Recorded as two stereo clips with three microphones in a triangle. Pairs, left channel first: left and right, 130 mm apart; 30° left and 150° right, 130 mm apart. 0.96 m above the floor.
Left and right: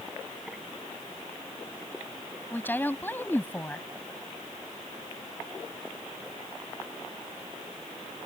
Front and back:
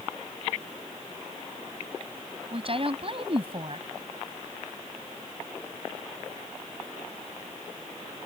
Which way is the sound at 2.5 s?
165° left.